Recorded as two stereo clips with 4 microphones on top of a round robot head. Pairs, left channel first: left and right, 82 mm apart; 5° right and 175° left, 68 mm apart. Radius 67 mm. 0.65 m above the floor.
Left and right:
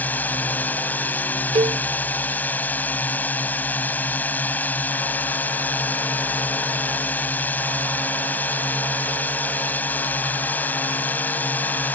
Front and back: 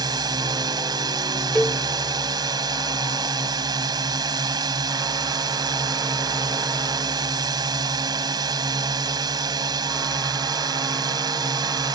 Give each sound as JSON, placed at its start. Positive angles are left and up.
{"t": 0.0, "sound": "a drone", "azimuth_deg": 160}
{"t": 1.6, "sound": "a cowbell", "azimuth_deg": -90}